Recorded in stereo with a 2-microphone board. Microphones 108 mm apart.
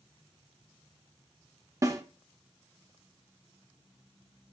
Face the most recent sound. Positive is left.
turn(degrees=-30)  # may be behind; listen again after turning